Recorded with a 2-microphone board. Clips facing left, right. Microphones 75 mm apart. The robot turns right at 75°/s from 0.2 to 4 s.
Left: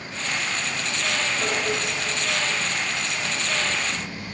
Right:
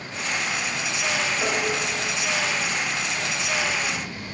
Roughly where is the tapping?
Centre.